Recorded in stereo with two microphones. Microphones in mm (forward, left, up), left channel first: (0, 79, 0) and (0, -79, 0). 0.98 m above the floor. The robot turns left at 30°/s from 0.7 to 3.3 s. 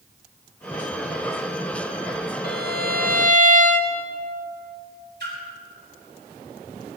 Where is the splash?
85° right, 5 m.